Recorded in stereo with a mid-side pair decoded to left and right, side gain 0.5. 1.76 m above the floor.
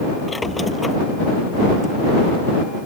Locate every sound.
0.3 s a squeak: 15° left